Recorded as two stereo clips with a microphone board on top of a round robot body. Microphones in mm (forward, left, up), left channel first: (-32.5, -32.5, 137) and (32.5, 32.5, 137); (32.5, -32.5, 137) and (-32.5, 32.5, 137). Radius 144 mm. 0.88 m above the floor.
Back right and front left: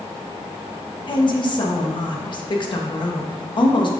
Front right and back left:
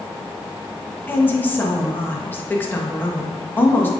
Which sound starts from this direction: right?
A woman speaking, at 1.1 s.